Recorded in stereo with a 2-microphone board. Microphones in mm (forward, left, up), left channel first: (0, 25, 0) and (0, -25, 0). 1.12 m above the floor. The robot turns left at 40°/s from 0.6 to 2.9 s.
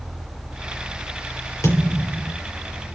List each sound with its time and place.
1.6 s a thud: 105° left, 7.5 m; by 2.4 s 75° left, 7.5 m